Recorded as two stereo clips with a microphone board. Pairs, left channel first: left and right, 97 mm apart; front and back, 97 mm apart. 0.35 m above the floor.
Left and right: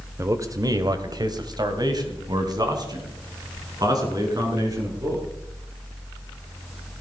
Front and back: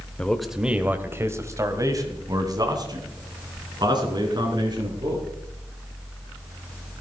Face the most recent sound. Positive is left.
turn(degrees=-140)